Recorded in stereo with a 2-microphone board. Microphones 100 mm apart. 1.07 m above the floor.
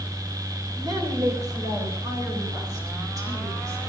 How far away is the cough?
No cough in this recording.